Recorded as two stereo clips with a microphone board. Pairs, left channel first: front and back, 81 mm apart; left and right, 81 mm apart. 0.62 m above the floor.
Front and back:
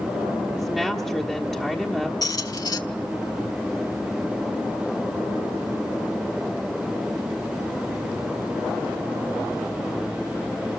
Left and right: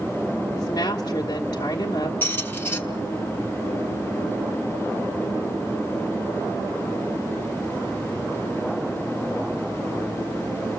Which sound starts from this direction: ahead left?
A squeak, at 2.2 s.